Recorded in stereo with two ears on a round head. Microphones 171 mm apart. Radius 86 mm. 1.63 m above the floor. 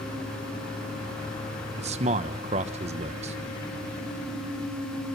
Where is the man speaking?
35° right (ahead or behind), 1.0 m.